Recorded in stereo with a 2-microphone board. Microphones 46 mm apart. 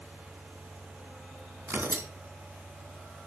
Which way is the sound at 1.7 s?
60° right (ahead or behind).